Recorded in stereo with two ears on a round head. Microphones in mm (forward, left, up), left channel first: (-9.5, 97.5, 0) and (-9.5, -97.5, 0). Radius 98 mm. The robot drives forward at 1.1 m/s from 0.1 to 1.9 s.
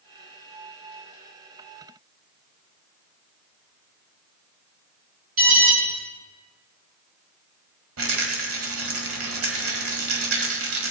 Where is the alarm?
70° right (ahead or behind), 4.5 m.